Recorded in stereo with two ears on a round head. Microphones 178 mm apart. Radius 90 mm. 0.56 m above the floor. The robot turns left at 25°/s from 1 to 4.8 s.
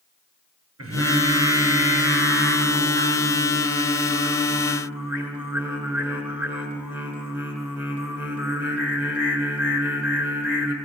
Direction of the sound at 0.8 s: 75° right.